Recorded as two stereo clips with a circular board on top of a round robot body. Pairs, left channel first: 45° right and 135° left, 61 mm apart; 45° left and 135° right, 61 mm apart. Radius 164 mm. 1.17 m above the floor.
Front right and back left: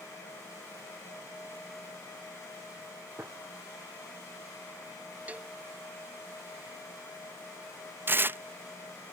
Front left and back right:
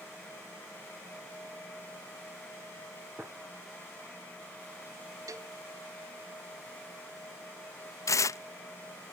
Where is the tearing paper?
80° left.